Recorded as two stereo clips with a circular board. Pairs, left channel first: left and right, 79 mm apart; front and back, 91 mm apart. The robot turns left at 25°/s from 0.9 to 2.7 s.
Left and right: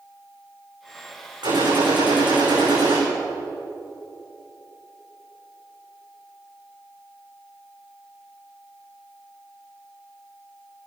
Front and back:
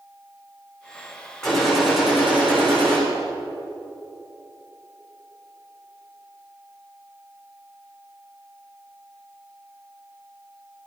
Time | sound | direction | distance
1.4 | a gunshot | 85° right | 9 m